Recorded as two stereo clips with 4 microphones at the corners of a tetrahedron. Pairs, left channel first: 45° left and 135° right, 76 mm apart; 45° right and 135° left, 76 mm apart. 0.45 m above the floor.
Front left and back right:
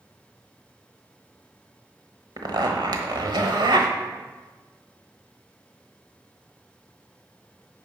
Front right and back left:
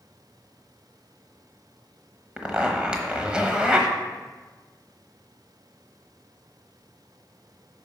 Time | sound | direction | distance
2.4 | a zipper | 150° right | 1.1 m